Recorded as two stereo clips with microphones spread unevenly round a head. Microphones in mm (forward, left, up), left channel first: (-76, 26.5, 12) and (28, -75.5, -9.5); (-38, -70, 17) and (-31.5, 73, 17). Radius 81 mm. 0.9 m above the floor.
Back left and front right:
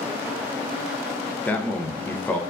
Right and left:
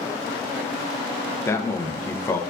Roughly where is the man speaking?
Behind right.